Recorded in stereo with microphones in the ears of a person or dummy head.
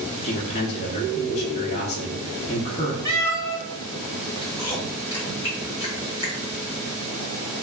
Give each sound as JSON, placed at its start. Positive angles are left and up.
{"t": 0.2, "sound": "a man speaking", "side_deg": 40, "distance_m": 0.6}
{"t": 3.0, "sound": "a cat meowing", "side_deg": 15, "distance_m": 1.6}
{"t": 4.4, "sound": "chewing", "side_deg": 25, "distance_m": 1.3}